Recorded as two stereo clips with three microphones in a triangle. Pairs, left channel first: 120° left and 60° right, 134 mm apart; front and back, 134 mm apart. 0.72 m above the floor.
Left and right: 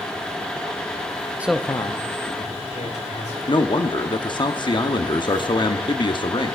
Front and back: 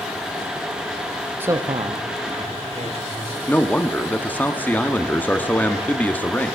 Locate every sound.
1.4 s a man speaking: 120° right, 0.6 m; by 3.4 s 140° left, 3 m
3.5 s a man speaking: 75° left, 1.0 m